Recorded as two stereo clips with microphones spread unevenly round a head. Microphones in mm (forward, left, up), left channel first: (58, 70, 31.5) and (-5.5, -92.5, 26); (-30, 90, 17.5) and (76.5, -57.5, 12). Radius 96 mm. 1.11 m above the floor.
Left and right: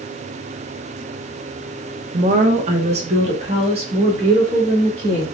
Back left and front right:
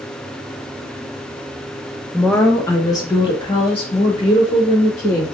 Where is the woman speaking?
145° right, 0.5 m; by 5.2 s 175° right, 2 m.